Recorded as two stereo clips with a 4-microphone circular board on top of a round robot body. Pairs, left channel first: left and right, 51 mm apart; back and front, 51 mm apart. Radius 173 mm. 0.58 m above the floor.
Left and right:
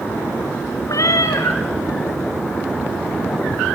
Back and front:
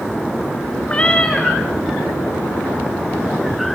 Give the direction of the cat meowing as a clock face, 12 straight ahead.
8 o'clock.